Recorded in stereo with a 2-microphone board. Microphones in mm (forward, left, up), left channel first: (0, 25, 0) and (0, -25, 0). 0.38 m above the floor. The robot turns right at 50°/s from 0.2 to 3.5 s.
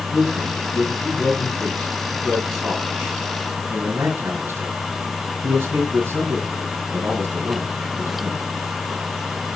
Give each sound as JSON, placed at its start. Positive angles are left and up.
{"t": 0.1, "sound": "a man speaking", "side_deg": 60, "distance_m": 3.0}